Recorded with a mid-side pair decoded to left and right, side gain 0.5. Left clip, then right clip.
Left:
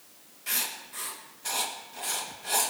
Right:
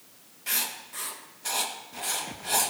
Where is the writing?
10° right, 1.8 m.